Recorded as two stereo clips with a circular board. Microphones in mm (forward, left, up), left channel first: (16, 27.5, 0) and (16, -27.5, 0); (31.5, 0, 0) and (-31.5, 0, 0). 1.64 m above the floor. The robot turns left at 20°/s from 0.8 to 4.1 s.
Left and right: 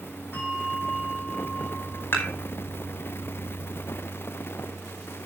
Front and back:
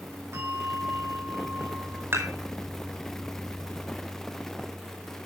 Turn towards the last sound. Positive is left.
turn(degrees=90)